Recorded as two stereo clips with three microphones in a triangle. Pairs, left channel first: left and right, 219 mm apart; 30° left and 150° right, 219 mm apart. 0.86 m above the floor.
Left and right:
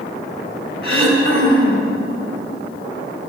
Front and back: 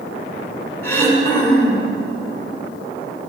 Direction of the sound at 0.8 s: 110° left.